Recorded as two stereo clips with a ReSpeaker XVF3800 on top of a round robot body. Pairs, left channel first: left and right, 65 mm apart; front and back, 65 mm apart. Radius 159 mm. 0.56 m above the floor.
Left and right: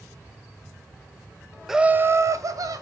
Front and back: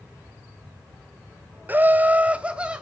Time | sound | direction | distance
1.7 | laughter | 170° right | 0.6 m